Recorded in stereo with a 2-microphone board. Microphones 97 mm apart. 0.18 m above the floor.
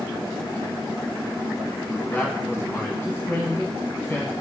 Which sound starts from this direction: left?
A man speaking, at 2.1 s.